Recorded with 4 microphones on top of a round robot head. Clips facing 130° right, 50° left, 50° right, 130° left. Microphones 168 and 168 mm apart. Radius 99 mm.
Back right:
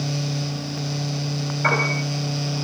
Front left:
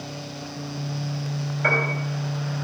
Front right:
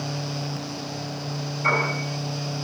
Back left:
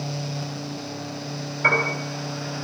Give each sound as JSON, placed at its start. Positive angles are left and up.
{"t": 1.6, "sound": "a piano", "azimuth_deg": 110, "distance_m": 5.5}